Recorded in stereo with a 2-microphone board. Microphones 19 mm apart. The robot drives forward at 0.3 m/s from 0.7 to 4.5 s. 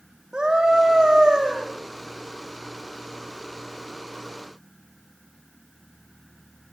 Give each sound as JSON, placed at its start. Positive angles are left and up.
{"t": 0.3, "sound": "a scream", "side_deg": -45, "distance_m": 5.5}